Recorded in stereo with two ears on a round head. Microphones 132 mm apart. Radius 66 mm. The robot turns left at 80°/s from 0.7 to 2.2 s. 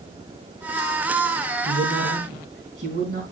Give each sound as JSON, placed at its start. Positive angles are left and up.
{"t": 1.6, "sound": "a man speaking", "azimuth_deg": -80, "distance_m": 4.0}